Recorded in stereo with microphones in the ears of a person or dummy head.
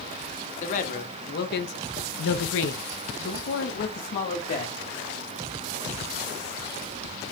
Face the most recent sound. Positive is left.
turn(degrees=40)  # may be behind; listen again after turning